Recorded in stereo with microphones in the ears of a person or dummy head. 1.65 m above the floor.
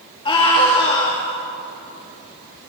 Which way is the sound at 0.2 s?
30° left (ahead or behind).